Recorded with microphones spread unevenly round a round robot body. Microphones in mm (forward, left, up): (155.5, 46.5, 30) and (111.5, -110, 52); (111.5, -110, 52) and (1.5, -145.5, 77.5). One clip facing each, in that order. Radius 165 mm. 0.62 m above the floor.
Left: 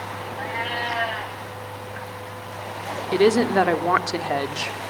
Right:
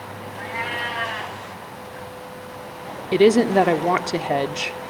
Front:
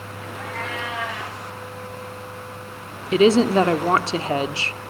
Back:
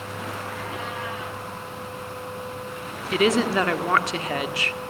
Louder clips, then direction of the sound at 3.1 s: Right 3 dB, front 6 dB; 35° right.